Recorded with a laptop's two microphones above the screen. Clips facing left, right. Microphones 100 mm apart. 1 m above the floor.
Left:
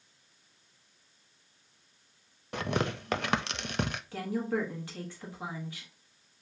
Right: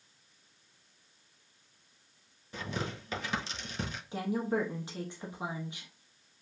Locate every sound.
2.5 s tearing paper: 70° left (ahead or behind), 0.5 m
4.1 s a woman speaking: 20° right (ahead or behind), 0.9 m